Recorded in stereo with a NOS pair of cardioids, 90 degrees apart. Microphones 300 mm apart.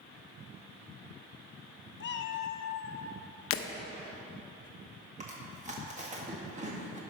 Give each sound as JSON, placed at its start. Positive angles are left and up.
{"t": 2.0, "sound": "a cat meowing", "azimuth_deg": 45, "distance_m": 0.7}
{"t": 3.5, "sound": "breaking glass", "azimuth_deg": 50, "distance_m": 0.9}
{"t": 5.2, "sound": "chewing", "azimuth_deg": -25, "distance_m": 1.9}